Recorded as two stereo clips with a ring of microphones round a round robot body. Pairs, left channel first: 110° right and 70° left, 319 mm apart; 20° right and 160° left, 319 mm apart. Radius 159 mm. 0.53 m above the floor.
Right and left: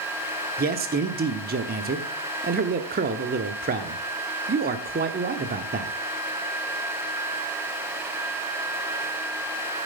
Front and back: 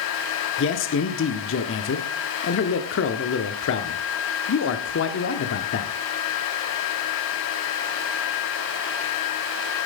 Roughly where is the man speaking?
Ahead.